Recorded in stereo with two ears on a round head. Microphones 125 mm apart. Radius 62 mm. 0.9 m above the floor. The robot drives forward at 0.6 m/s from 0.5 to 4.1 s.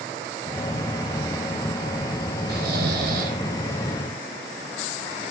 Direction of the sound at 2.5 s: 75° right (ahead or behind).